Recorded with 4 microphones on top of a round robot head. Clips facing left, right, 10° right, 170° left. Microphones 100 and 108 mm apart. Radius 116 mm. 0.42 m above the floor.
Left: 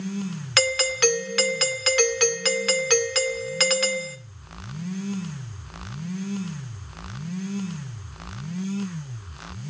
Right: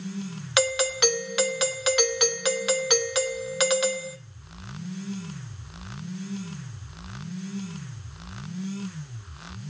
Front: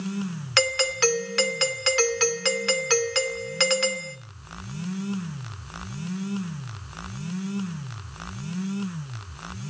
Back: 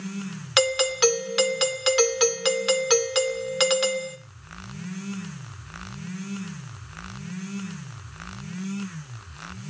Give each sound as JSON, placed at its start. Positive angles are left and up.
{"t": 0.6, "sound": "a doorbell", "azimuth_deg": -140, "distance_m": 2.0}